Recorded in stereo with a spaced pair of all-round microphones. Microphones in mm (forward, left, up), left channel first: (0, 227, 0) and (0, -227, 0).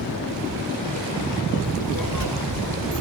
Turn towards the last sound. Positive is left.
turn(degrees=-35)  # may be behind; listen again after turning